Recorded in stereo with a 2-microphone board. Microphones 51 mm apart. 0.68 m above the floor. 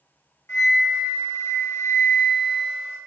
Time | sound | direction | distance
0.5 | a flute | 65° left (ahead or behind) | 0.7 m